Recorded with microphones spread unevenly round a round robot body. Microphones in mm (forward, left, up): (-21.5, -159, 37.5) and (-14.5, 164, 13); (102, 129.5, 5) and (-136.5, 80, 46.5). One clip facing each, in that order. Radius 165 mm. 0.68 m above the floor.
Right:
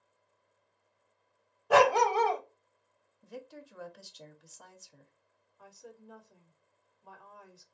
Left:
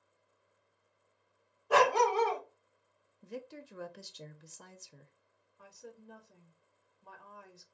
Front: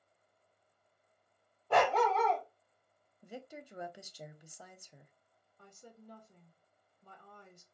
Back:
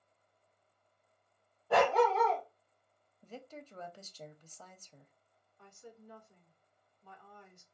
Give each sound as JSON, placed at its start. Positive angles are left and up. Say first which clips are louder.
{"t": 1.7, "sound": "a dog barking", "louder": "right 3 dB, back 2 dB", "azimuth_deg": -90, "distance_m": 0.7}
{"t": 3.2, "sound": "a woman speaking", "louder": "left 2 dB, front 1 dB", "azimuth_deg": 65, "distance_m": 0.6}
{"t": 5.6, "sound": "a woman speaking", "louder": "even, back 2 dB", "azimuth_deg": 35, "distance_m": 1.3}